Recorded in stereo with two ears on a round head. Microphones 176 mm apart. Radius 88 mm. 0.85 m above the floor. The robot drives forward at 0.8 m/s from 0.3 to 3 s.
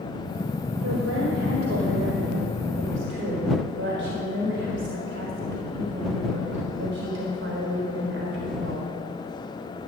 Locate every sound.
0.8 s a woman speaking: 75° right (ahead or behind), 3.5 m; by 8.9 s 65° right (ahead or behind), 4 m